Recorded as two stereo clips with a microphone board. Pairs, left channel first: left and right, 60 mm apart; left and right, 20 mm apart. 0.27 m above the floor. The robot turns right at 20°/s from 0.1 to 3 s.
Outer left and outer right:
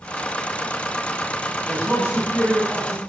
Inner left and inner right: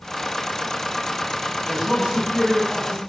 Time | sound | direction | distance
1.7 | a man speaking | 35° right (ahead or behind) | 1.8 m